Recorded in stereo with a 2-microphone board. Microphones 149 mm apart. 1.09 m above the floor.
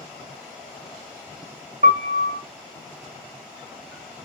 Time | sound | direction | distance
1.8 | a piano | 65° right (ahead or behind) | 0.5 m